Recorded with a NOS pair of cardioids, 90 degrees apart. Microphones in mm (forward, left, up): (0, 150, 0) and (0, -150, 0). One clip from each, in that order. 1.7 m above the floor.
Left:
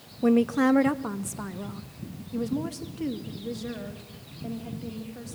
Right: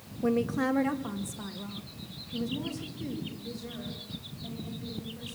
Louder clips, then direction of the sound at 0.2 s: Left 6 dB; 20° left.